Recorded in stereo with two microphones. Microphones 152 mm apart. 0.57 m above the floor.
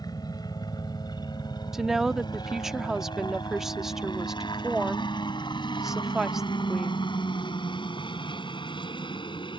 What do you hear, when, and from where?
0.0 s a helicopter: 25° left (ahead or behind); by 9.6 s 30° left (ahead or behind)
1.7 s a woman speaking: 5° right (ahead or behind)